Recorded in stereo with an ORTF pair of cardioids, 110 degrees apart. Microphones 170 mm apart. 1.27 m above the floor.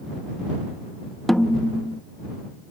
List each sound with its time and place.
1.3 s a snare drum: straight ahead